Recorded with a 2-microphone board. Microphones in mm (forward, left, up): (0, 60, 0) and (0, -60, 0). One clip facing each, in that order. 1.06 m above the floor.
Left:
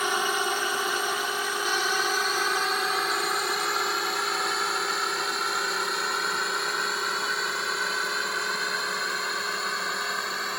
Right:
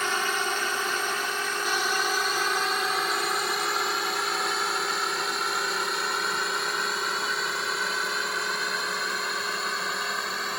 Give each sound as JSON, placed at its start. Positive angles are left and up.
{"t": 0.0, "sound": "a drone", "side_deg": 10}